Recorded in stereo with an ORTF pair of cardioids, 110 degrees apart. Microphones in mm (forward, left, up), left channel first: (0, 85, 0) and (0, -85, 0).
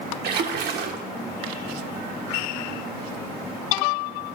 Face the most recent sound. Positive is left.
turn(degrees=-70)